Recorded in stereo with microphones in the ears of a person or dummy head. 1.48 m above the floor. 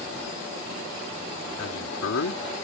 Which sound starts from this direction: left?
A man speaking, at 1.6 s.